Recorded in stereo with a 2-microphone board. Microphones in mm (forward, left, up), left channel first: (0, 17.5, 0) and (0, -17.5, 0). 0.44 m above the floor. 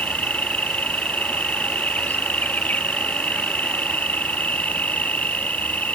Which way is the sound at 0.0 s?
50° left (ahead or behind).